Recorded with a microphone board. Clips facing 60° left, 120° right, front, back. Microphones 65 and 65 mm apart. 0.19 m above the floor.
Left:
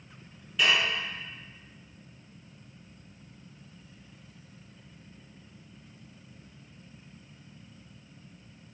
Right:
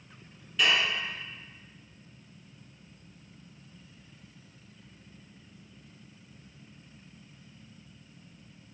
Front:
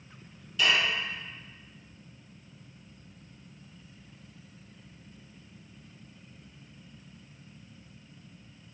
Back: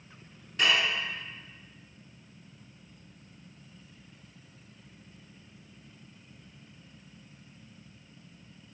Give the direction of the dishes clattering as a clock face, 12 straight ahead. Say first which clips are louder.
Left 1 dB, even; 7 o'clock.